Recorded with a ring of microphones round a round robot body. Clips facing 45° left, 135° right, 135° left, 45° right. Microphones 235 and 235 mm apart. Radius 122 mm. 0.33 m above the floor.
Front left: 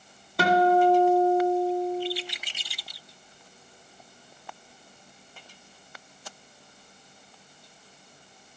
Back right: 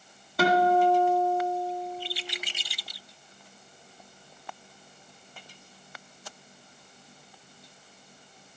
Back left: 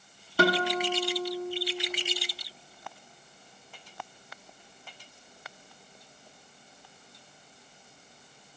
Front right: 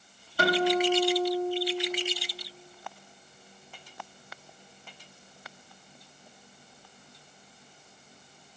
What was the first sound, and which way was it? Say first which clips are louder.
A guitar: front left 2 dB, front right 2 dB; 135° left.